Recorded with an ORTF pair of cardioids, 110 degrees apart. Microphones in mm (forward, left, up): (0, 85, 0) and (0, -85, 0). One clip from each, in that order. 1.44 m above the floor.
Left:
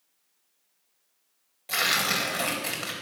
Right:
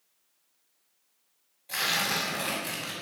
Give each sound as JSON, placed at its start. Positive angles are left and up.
{"t": 1.7, "sound": "tearing paper", "azimuth_deg": 70, "distance_m": 4.0}